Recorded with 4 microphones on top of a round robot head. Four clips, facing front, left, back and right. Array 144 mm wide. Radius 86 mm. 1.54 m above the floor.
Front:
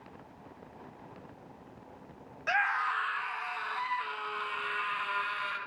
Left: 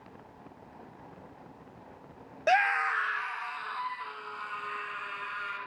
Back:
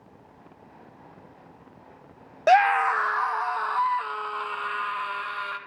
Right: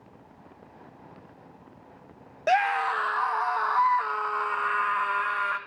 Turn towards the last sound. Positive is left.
turn(degrees=-110)